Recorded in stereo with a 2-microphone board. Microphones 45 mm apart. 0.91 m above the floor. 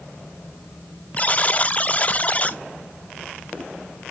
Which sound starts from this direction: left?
A buzzer, at 1.2 s.